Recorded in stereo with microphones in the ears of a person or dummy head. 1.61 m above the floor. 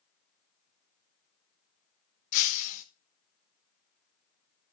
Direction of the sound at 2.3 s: 50° left (ahead or behind).